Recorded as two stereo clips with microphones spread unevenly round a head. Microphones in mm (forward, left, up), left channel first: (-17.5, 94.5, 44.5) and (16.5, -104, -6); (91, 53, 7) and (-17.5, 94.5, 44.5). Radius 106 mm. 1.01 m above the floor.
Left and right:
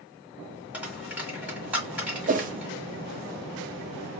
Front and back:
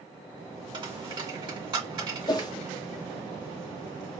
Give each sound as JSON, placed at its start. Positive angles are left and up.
{"t": 0.7, "sound": "a dropped coin", "azimuth_deg": -175, "distance_m": 1.3}
{"t": 2.3, "sound": "a whoosh", "azimuth_deg": -50, "distance_m": 0.5}